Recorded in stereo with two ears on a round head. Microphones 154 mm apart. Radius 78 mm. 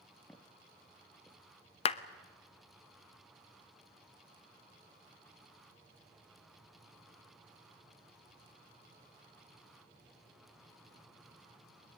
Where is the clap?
35° left (ahead or behind), 0.8 m.